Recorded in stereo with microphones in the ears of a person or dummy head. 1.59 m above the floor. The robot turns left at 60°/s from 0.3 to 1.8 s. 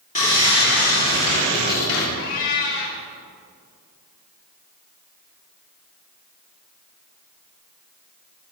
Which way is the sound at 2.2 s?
40° left (ahead or behind).